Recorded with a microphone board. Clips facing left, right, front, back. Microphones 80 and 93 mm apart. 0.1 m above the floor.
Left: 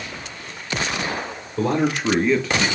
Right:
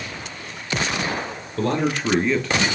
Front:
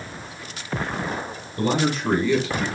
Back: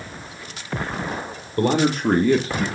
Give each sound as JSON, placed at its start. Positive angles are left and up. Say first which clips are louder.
{"t": 1.6, "sound": "a man speaking", "louder": "left 1 dB, back 3 dB", "azimuth_deg": 170, "distance_m": 2.5}